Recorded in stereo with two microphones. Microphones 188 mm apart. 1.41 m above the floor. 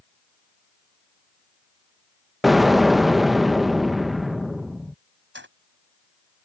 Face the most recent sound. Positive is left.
turn(degrees=-85)